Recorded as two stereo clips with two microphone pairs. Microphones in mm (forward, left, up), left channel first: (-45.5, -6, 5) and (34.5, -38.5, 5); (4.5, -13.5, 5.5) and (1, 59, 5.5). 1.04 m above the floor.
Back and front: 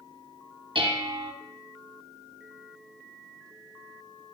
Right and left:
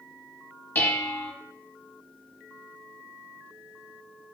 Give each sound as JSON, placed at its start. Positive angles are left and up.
{"t": 0.8, "sound": "dishes clattering", "azimuth_deg": -25, "distance_m": 0.8}